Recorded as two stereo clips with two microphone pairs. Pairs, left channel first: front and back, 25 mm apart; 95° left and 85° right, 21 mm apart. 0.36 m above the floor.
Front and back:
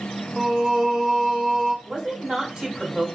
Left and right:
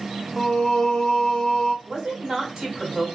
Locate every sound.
0.4 s singing: 135° left, 0.9 m
1.9 s a woman speaking: 135° right, 1.6 m